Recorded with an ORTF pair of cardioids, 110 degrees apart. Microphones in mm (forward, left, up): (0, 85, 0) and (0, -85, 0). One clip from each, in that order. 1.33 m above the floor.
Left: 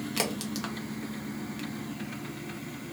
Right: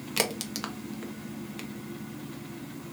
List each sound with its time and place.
0.2 s a crack: 20° right, 0.8 m